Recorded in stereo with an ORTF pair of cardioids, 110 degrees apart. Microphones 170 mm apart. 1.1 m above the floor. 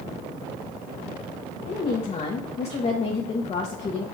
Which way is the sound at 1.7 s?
40° left.